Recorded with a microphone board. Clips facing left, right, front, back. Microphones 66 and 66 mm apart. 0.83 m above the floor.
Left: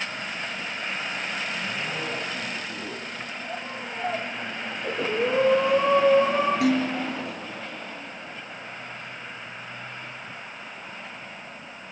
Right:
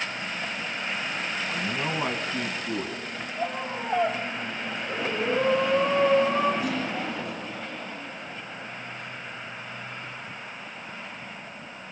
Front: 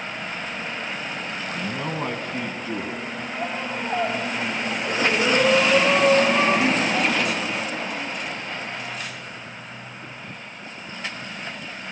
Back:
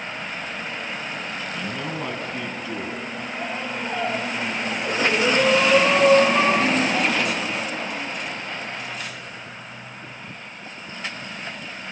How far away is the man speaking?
About 8 m.